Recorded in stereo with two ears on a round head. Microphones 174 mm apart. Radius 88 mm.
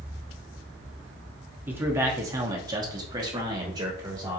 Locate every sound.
1.7 s a man speaking: 10° right (ahead or behind), 0.9 m; by 4.4 s 20° right (ahead or behind), 1.4 m